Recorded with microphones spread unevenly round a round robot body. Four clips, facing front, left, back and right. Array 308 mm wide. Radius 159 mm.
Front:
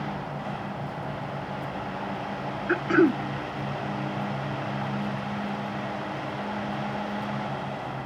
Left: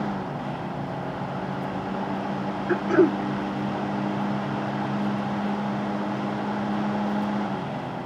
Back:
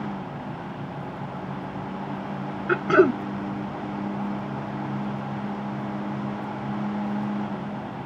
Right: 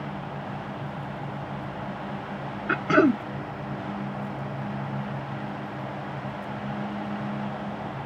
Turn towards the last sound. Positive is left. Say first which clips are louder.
# left 1 dB, back 3 dB
turn(degrees=-135)